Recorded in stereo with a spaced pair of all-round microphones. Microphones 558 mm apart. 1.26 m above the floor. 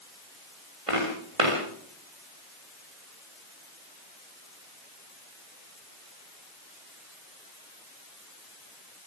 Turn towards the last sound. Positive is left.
turn(degrees=-75)  # may be behind; listen again after turning